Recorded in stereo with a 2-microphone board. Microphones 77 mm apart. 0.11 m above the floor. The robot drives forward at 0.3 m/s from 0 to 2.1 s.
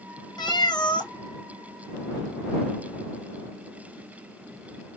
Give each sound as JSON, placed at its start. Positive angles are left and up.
{"t": 0.4, "sound": "a cat meowing", "side_deg": 65, "distance_m": 0.7}